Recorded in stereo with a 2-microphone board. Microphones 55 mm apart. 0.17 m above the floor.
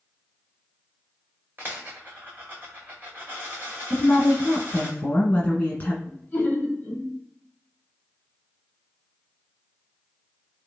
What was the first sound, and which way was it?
A dropped coin, 35° right (ahead or behind).